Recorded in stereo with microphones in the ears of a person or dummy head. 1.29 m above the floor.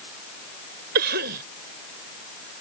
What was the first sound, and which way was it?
A cough, 60° right (ahead or behind).